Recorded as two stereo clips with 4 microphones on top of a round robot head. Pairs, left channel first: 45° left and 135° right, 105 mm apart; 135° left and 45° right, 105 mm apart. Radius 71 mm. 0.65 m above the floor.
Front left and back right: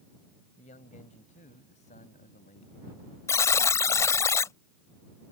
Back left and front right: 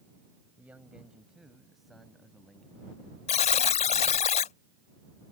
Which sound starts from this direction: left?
A buzzer, at 3.3 s.